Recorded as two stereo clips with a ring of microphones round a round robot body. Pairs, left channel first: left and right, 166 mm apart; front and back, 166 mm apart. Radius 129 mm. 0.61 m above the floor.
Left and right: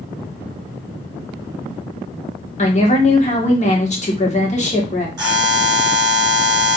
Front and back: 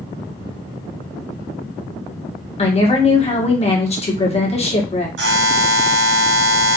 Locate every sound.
2.6 s a woman speaking: 50° left, 1.4 m
5.2 s a buzzer: 165° right, 2 m